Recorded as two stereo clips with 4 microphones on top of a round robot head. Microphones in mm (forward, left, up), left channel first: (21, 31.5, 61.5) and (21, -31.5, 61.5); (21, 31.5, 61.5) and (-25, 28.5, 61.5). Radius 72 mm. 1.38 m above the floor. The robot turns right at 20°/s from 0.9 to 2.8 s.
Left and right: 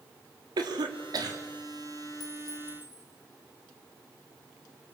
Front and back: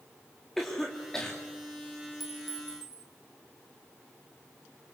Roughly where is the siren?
No siren in this recording.